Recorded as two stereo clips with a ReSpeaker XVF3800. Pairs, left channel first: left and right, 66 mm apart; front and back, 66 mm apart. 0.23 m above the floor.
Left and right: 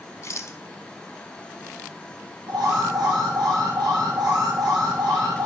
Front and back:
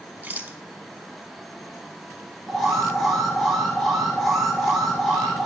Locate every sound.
0.2 s a rattle: 120° left, 0.8 m
2.5 s an alarm: 85° right, 4 m